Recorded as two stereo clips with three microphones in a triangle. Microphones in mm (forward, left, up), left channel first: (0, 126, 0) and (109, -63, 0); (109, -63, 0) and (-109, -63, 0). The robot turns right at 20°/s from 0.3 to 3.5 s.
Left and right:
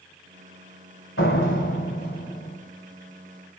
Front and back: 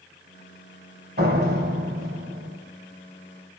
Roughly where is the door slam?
Behind left.